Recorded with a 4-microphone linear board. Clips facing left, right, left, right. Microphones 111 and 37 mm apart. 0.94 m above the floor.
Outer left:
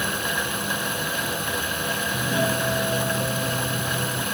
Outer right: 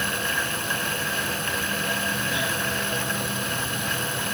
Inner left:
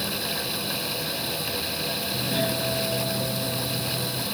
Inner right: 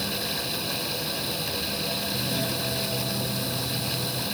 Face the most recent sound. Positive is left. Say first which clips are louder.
# outer left 4 dB, inner left 2 dB
turn(degrees=40)  # may be behind; listen again after turning